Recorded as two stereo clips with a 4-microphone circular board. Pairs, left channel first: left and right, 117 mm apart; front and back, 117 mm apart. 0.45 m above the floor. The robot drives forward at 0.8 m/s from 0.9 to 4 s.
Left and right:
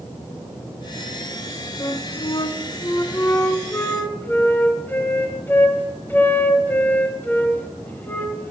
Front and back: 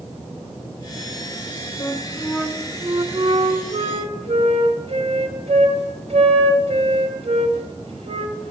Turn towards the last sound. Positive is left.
turn(degrees=160)